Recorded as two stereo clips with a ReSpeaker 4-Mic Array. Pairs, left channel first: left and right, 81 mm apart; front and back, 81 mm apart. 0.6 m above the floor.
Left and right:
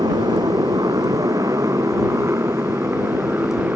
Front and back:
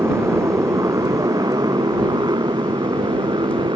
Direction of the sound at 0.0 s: 120° right.